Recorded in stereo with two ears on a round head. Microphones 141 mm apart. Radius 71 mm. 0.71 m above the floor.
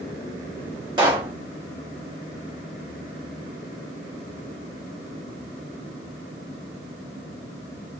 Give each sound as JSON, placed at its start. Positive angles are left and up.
{"t": 1.0, "sound": "a pop", "side_deg": -30, "distance_m": 1.1}